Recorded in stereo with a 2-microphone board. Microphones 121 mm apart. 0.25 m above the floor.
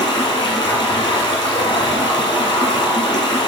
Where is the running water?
40° left (ahead or behind), 1.6 m.